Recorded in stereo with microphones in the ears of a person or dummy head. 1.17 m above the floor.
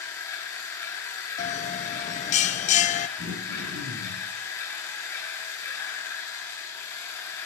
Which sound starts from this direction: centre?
A machine running, at 0.0 s.